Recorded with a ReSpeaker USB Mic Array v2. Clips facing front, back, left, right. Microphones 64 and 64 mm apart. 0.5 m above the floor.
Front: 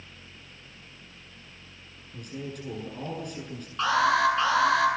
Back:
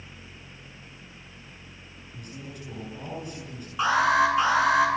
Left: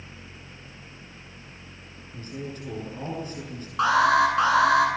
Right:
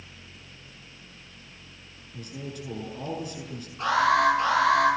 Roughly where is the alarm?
Left.